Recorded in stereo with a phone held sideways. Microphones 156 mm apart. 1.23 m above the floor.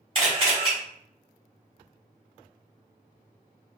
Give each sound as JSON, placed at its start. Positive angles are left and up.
{"t": 0.1, "sound": "a camera shutter", "side_deg": -35, "distance_m": 1.8}